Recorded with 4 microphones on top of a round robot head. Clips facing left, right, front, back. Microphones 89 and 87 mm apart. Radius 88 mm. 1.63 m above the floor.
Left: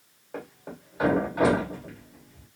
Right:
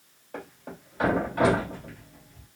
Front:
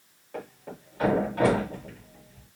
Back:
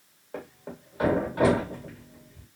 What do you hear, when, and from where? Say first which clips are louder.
0.3 s a thud: left 1 dB, even; 155° left, 1.1 m